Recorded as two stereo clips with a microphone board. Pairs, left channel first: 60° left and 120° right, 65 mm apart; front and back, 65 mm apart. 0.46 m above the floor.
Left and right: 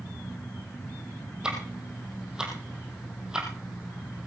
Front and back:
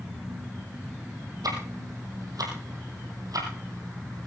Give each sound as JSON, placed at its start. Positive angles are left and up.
{"t": 1.4, "sound": "ticking", "azimuth_deg": 160, "distance_m": 4.0}